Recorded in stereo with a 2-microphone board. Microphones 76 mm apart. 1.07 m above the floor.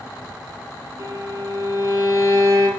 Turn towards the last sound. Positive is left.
turn(degrees=-45)  # may be behind; listen again after turning